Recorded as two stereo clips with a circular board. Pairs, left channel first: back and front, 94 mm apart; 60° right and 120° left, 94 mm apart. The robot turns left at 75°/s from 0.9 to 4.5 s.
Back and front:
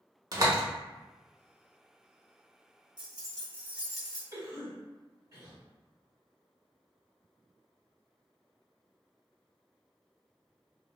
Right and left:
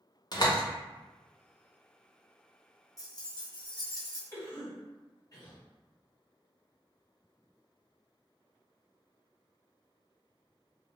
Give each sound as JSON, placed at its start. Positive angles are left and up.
{"t": 0.3, "sound": "a door slam", "azimuth_deg": -35, "distance_m": 0.7}
{"t": 3.0, "sound": "keys jangling", "azimuth_deg": -15, "distance_m": 0.7}
{"t": 4.3, "sound": "a cough", "azimuth_deg": -15, "distance_m": 1.8}